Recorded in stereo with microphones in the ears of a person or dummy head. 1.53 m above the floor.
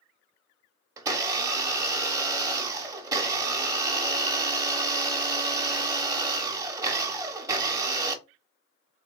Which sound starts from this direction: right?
A blender, at 1.0 s.